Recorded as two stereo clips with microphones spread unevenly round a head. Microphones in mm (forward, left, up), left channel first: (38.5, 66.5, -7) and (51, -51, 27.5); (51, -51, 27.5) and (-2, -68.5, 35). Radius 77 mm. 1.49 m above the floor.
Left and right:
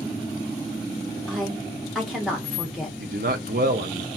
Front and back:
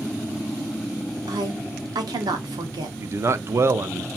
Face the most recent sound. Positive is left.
turn(degrees=-120)